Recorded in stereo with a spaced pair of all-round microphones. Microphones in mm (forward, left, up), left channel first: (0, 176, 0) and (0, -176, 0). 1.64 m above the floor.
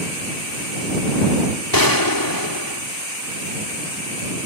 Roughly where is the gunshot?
Left.